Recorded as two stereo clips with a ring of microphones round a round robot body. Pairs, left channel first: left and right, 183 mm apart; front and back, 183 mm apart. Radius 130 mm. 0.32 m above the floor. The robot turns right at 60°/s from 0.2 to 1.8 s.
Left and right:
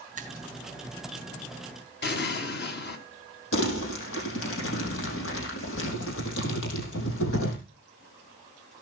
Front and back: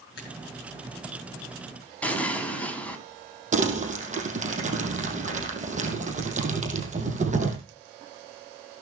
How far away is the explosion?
About 3.5 m.